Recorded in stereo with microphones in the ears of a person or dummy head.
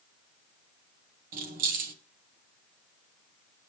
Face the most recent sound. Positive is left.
turn(degrees=-45)  # may be behind; listen again after turning